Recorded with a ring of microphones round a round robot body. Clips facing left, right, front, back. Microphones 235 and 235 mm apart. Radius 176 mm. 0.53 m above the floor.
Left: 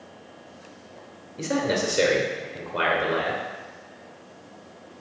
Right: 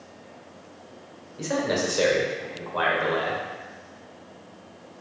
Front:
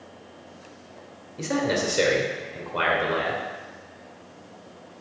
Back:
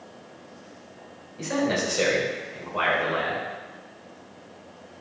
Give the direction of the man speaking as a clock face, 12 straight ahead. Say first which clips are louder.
Left 1 dB, even; 11 o'clock.